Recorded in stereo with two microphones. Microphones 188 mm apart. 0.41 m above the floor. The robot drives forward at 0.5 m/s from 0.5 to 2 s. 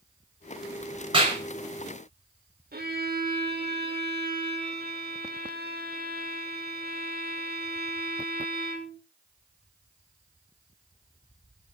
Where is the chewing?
No chewing in this recording.